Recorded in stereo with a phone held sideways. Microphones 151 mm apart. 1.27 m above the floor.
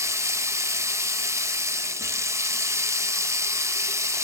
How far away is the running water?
About 1.3 m.